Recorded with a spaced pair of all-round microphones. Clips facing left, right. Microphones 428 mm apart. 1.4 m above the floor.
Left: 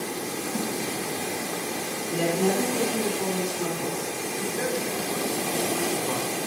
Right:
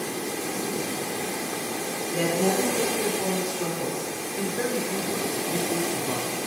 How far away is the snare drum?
About 1.5 m.